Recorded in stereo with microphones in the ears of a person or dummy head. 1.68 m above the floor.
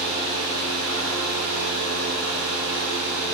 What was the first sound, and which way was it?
A fan, 80° right.